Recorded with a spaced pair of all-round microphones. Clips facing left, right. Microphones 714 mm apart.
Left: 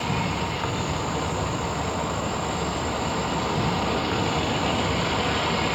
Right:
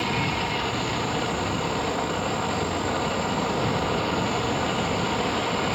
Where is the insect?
75° left (ahead or behind), 0.9 m.